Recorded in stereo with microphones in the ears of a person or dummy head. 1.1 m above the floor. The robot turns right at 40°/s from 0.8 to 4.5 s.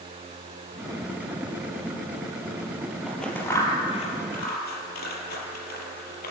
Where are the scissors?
Centre (ahead or behind), 5 m; by 6.3 s 55° left (ahead or behind), 5 m.